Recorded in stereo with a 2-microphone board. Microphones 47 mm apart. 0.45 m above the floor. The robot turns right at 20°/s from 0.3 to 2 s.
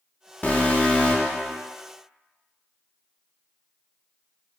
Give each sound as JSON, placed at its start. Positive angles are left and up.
{"t": 0.4, "sound": "an alarm", "side_deg": 35, "distance_m": 0.7}